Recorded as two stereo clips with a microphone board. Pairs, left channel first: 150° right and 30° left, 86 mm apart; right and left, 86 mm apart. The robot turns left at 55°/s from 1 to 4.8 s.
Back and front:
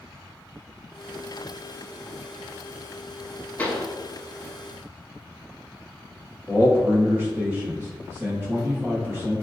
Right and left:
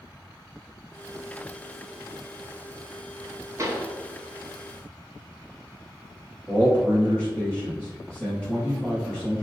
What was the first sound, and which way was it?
A pop, 140° left.